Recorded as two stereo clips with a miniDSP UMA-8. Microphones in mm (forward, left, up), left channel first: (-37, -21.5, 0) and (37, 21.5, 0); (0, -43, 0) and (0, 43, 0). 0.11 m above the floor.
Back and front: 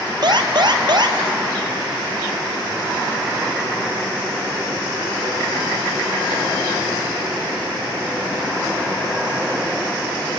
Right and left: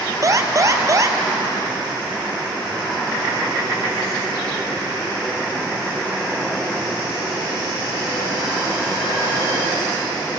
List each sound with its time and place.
0.2 s an alarm: 45° left, 1.6 m